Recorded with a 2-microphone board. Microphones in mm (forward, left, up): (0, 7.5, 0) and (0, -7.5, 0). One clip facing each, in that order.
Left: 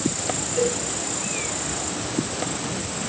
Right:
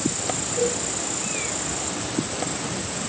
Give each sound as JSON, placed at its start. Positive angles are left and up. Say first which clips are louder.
{"t": 0.6, "sound": "a cowbell", "louder": "left 1 dB", "side_deg": 40, "distance_m": 2.0}